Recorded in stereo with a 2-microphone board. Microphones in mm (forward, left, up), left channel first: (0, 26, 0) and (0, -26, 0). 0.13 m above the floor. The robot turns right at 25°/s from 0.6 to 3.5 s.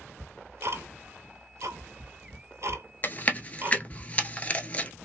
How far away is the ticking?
About 0.7 m.